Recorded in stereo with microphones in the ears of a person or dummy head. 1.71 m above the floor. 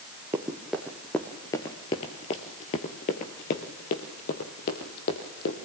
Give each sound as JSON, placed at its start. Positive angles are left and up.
{"t": 0.3, "sound": "running footsteps", "side_deg": -10, "distance_m": 1.7}